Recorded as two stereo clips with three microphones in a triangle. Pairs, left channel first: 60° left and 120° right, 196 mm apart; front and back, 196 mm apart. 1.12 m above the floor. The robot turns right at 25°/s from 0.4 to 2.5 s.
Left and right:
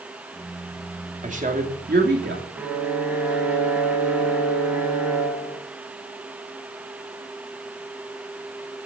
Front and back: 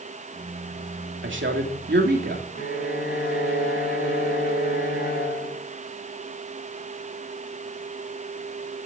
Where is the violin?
35° right, 6 m.